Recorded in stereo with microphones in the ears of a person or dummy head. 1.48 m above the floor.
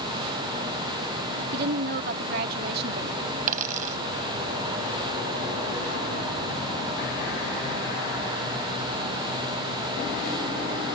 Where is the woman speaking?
60° right (ahead or behind).